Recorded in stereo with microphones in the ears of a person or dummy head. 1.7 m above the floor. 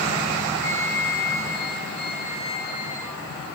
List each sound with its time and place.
0.6 s a flute: 40° left (ahead or behind), 3 m